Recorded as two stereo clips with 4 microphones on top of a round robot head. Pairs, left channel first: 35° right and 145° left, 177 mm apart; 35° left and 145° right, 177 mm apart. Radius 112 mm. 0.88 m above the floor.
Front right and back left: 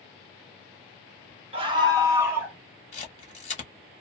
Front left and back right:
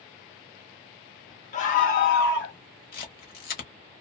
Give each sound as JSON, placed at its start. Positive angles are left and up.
{"t": 1.5, "sound": "a scream", "azimuth_deg": 85, "distance_m": 1.3}
{"t": 2.9, "sound": "a camera shutter", "azimuth_deg": 10, "distance_m": 0.8}